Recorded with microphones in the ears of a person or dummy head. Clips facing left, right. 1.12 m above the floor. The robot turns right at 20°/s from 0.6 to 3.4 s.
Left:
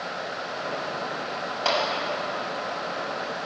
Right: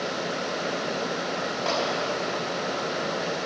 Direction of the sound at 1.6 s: 85° left.